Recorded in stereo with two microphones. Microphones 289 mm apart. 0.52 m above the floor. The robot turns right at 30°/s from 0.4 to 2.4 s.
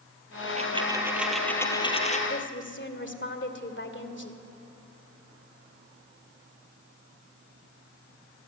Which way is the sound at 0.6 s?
25° right.